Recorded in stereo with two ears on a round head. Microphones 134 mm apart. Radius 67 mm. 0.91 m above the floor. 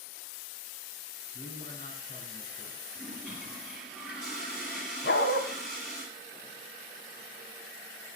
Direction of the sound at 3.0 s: 5° left (ahead or behind).